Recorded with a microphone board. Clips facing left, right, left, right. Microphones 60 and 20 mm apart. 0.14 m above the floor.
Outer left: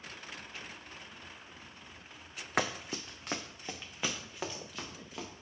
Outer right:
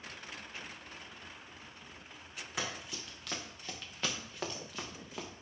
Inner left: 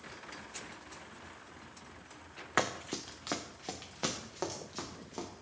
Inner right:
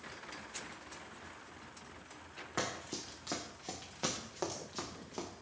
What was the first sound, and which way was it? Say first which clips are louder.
Running footsteps: outer left 7 dB, inner left 6 dB; 55° left (ahead or behind).